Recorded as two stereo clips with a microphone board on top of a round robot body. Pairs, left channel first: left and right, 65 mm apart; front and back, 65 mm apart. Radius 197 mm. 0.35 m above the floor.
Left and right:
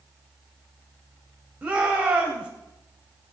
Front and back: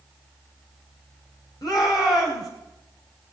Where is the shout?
20° right, 3 m.